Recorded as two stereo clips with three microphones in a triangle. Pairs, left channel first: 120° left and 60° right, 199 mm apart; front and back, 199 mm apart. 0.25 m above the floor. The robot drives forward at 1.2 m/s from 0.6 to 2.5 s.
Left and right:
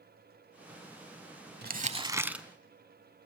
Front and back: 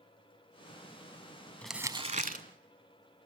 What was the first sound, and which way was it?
Crumpling, 80° right.